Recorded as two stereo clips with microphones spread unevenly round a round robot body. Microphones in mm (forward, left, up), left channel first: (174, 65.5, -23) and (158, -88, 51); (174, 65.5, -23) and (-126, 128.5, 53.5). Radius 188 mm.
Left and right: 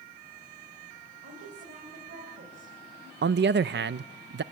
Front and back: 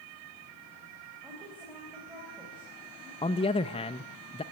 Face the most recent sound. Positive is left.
turn(degrees=-70)